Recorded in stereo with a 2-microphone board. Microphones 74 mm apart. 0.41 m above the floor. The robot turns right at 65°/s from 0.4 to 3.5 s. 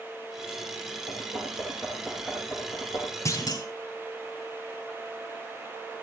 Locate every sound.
1.1 s knocking: 75° right (ahead or behind), 6 m; by 3.1 s 60° left (ahead or behind), 6 m
3.2 s a clunk: 45° left (ahead or behind), 3 m; by 3.7 s 55° left (ahead or behind), 3 m